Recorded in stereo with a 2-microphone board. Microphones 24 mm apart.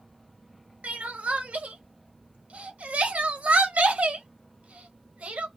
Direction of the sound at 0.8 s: 75° right (ahead or behind).